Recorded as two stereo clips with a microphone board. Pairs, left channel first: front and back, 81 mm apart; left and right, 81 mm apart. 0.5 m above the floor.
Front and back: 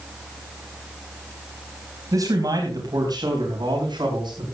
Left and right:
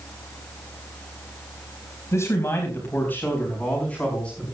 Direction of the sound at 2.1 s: 145° left.